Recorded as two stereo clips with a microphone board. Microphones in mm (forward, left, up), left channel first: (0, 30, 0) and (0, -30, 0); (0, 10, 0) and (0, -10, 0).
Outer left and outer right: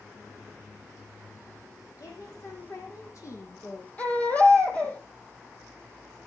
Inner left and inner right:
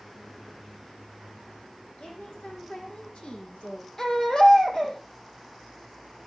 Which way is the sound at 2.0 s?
65° left (ahead or behind).